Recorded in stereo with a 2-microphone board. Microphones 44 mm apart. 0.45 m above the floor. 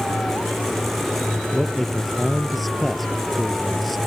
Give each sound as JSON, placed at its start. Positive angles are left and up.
{"t": 1.5, "sound": "a man speaking", "side_deg": 0}